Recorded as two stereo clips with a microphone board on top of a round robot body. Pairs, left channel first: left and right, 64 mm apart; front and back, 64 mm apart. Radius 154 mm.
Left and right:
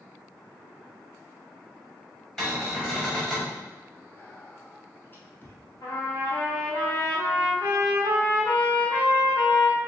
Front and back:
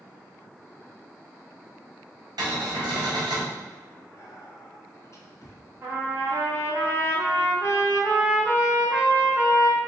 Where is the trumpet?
130° left, 0.8 m.